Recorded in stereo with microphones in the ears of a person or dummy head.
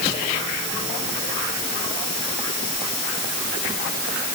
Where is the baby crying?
No baby crying in this recording.